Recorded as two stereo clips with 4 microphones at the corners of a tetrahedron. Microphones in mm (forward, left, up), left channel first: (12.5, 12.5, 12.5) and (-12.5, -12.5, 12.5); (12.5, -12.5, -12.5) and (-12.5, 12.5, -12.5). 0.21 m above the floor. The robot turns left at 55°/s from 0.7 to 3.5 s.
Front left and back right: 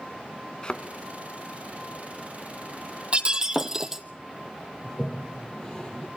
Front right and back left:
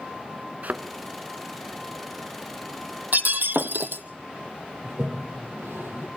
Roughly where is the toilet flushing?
Behind left.